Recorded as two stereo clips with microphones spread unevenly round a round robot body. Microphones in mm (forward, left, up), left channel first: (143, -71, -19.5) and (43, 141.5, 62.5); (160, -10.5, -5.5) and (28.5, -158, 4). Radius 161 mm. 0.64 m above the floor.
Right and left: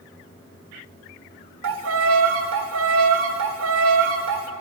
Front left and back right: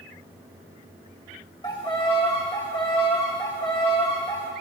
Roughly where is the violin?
Behind left.